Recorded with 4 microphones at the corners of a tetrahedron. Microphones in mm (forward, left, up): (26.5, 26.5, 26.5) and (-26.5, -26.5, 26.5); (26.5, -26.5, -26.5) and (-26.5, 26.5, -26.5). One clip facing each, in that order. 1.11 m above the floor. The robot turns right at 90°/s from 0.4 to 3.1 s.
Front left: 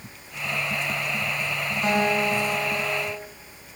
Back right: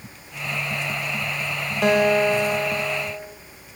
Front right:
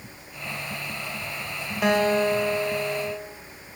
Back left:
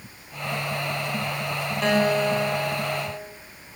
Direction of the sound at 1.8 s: 125° right.